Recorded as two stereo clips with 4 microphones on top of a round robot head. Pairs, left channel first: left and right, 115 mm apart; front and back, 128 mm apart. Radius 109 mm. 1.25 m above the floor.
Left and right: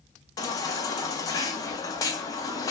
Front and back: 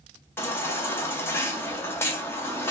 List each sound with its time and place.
0.4 s a baby crying: 60° left, 0.6 m